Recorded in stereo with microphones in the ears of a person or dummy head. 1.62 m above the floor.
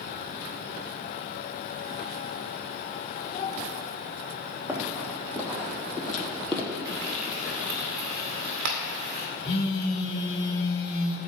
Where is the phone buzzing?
40° left (ahead or behind), 3 m.